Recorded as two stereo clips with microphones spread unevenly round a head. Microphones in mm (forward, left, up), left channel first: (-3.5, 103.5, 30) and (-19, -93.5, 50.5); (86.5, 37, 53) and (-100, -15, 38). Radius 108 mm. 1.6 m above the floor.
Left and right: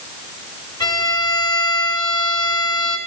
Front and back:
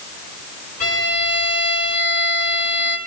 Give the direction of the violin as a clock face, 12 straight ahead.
12 o'clock.